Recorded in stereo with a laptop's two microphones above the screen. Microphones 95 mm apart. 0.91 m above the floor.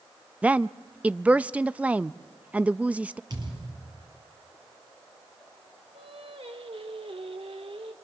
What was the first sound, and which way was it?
A woman speaking, 15° right (ahead or behind).